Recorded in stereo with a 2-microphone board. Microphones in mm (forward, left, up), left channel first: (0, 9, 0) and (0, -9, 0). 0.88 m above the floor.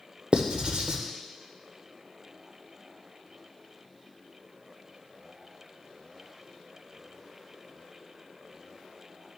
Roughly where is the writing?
Right.